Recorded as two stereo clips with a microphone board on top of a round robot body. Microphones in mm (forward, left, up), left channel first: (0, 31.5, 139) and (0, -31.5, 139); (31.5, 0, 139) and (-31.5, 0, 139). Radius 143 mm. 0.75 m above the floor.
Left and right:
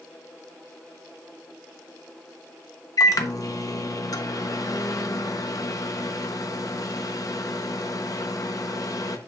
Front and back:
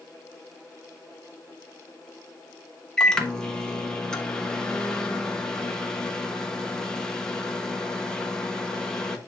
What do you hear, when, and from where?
3.0 s a microwave: 80° left, 1.2 m